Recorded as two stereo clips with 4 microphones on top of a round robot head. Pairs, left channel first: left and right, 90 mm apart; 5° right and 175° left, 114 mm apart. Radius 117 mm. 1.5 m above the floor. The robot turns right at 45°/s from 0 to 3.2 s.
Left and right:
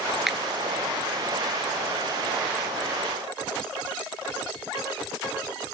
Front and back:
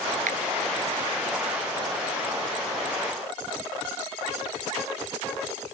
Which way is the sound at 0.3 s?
175° right.